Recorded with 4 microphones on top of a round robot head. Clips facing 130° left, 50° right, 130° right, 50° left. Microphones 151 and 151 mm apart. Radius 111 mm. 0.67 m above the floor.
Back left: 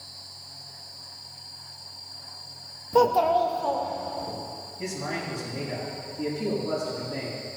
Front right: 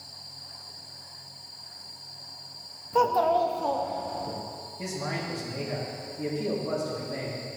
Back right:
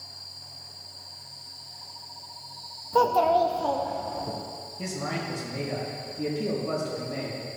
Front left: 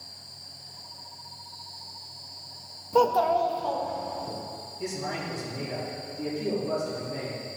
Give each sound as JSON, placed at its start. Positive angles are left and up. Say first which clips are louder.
{"t": 2.9, "sound": "a child speaking", "louder": "back left 3 dB, back right 1 dB", "azimuth_deg": 115, "distance_m": 0.6}
{"t": 4.8, "sound": "a man speaking", "louder": "back left 1 dB, back right 1 dB", "azimuth_deg": -115, "distance_m": 3.5}